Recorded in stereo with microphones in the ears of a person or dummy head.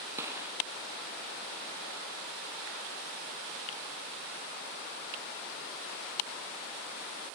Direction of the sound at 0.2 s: 10° right (ahead or behind).